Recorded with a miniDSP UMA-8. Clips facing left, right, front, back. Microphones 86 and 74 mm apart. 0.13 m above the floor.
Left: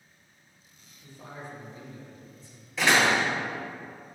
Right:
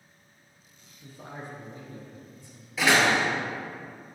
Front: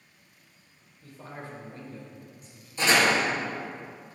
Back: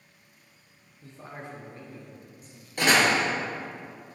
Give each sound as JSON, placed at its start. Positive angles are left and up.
{"t": 1.0, "sound": "a man speaking", "azimuth_deg": -125, "distance_m": 1.9}
{"t": 2.8, "sound": "a door slam", "azimuth_deg": -175, "distance_m": 2.0}